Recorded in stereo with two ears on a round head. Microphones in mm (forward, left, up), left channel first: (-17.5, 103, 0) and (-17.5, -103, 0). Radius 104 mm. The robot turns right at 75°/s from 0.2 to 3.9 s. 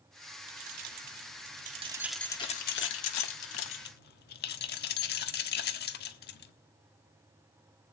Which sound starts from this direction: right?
Keys jangling, at 0.5 s.